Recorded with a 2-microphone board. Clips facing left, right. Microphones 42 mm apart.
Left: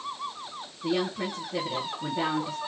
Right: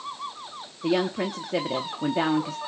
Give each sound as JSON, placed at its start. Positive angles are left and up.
{"t": 0.8, "sound": "a woman speaking", "side_deg": -85, "distance_m": 0.7}